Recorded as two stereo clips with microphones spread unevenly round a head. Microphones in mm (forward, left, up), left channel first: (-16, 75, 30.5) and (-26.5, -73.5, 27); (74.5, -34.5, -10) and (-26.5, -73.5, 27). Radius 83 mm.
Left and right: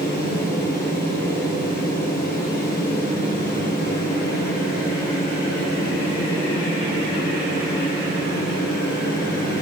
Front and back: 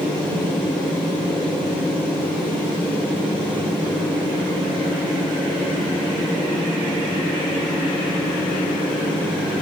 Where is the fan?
95° left, 4.5 m.